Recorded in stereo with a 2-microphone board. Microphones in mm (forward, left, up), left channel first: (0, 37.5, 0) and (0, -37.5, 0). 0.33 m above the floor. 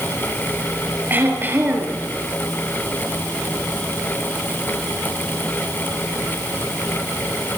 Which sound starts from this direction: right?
Throat clearing, at 1.1 s.